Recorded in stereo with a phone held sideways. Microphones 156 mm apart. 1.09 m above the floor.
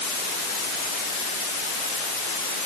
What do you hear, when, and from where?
Only background noise.